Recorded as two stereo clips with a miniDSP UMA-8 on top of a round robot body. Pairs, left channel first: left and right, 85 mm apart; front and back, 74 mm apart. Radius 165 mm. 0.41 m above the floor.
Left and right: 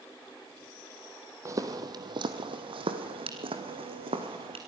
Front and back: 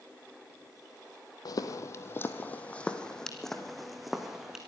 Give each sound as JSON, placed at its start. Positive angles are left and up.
{"t": 1.4, "sound": "footsteps", "azimuth_deg": -35, "distance_m": 1.0}